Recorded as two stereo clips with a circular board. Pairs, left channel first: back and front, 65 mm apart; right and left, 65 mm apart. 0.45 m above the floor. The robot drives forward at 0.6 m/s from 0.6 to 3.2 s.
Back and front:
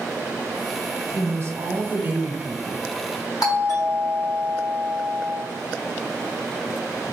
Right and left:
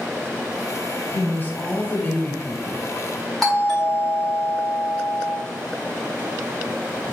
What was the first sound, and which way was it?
A woman speaking, 30° right.